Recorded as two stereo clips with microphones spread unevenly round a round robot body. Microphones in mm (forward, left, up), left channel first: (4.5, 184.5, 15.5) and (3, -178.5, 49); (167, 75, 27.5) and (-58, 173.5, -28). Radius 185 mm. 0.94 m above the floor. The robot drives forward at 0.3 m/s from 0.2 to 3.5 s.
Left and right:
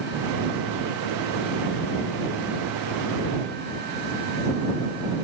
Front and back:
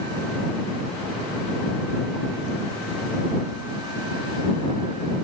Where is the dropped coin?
I don't hear a dropped coin.